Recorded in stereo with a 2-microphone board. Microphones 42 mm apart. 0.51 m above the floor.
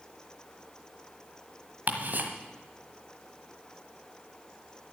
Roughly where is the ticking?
Right.